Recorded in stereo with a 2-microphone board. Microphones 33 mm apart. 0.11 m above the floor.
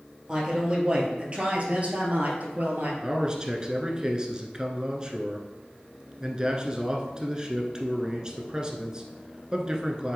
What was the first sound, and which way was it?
A man speaking, 20° right (ahead or behind).